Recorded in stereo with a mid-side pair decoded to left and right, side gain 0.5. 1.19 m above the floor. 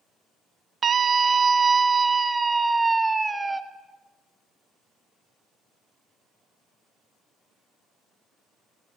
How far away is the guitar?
No guitar in this recording.